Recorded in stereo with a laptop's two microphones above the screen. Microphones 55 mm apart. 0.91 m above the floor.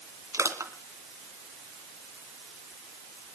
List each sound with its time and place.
0.3 s crushing: 75° right (ahead or behind), 2.5 m